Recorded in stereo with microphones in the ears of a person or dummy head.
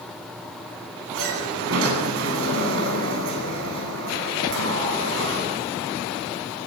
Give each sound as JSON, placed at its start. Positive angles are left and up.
{"t": 1.1, "sound": "a sliding door", "side_deg": -80, "distance_m": 9.5}